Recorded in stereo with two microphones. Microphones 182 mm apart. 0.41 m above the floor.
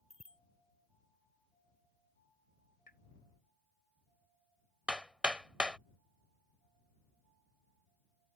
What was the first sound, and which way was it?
A bicycle bell, 35° right (ahead or behind).